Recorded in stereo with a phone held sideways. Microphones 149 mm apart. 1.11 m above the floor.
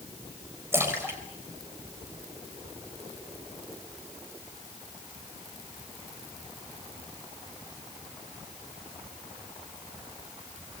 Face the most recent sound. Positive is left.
turn(degrees=-20)  # may be behind; listen again after turning